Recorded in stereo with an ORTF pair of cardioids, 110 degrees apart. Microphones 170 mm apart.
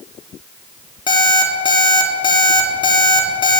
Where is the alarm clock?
25° left, 1.8 m.